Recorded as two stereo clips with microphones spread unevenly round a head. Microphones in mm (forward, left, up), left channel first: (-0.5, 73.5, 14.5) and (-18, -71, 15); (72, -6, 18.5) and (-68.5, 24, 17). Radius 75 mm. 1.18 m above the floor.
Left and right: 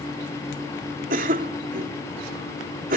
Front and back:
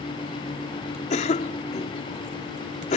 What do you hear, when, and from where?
1.1 s a cough: 60° right